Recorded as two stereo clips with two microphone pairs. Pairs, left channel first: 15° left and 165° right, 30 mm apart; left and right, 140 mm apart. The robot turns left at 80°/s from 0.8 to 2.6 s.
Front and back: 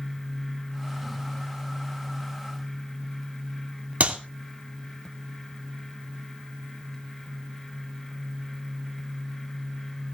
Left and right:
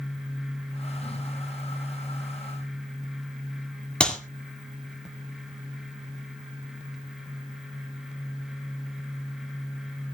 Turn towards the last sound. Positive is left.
turn(degrees=170)